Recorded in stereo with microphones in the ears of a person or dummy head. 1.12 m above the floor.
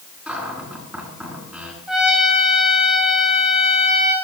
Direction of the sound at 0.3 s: 5° right (ahead or behind).